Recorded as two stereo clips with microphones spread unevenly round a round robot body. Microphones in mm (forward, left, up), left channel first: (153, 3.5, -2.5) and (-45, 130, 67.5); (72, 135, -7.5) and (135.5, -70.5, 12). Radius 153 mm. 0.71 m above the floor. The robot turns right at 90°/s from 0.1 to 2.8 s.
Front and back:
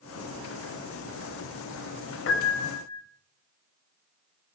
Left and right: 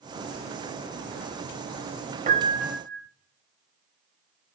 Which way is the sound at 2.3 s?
15° right.